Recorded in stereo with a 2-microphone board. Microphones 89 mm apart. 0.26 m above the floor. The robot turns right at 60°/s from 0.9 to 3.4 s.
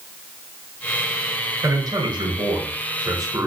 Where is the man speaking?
135° right, 3.5 m; by 3.5 s 30° right, 3.5 m.